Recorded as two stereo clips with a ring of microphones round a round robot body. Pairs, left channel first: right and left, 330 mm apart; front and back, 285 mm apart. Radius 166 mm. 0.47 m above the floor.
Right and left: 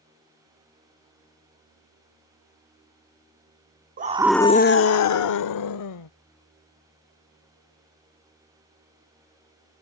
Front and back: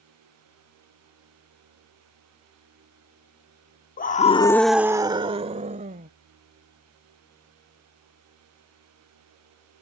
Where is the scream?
40° left; by 6.1 s 115° right.